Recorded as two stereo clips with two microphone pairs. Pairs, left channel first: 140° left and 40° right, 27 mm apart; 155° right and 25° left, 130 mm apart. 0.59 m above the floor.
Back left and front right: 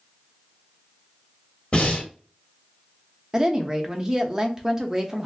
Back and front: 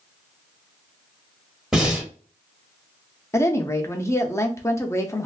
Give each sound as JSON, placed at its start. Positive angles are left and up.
{"t": 1.7, "sound": "breathing", "azimuth_deg": 115, "distance_m": 1.6}
{"t": 3.3, "sound": "a woman speaking", "azimuth_deg": -100, "distance_m": 0.7}